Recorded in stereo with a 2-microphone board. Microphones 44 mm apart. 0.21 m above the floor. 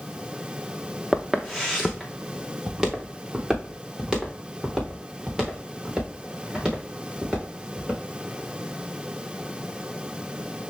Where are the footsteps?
Centre (ahead or behind), 1.1 m; by 8.0 s 20° right (ahead or behind), 5.5 m.